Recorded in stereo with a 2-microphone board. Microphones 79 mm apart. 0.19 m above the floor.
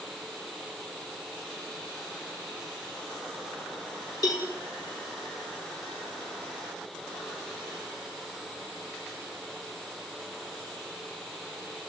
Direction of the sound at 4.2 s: 45° left (ahead or behind).